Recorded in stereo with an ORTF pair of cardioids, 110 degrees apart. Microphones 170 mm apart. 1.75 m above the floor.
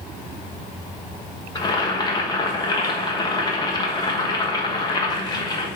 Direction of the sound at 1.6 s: 25° left.